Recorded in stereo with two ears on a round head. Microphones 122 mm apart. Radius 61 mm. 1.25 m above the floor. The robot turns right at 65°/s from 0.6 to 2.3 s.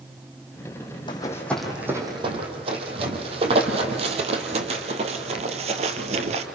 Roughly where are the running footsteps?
Left.